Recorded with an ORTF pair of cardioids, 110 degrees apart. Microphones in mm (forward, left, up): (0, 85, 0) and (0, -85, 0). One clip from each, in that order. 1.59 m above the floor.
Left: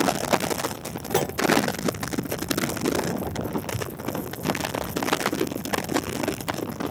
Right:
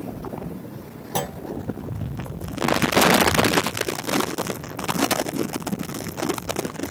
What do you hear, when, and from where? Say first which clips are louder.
1.1 s a clunk: left 2 dB; 10° right